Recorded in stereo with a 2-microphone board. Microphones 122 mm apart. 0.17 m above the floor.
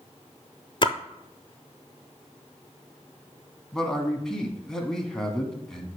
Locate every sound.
0.8 s a splash: 45° left (ahead or behind), 0.5 m
3.7 s a man speaking: 5° left (ahead or behind), 1.0 m